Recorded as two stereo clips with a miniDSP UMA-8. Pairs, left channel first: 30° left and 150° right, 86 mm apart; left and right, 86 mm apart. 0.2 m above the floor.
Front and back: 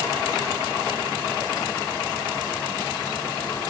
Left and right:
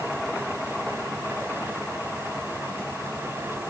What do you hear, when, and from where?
Only background noise.